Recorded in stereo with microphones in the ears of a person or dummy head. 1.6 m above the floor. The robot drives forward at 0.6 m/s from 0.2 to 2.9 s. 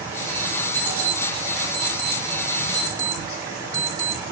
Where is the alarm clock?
5° left (ahead or behind), 3 m.